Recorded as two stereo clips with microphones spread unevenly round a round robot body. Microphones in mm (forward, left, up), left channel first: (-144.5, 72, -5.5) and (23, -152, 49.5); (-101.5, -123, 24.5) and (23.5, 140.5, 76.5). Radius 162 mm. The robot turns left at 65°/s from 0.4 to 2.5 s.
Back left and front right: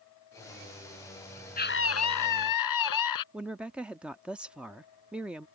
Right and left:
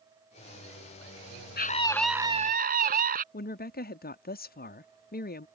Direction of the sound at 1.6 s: 175° right.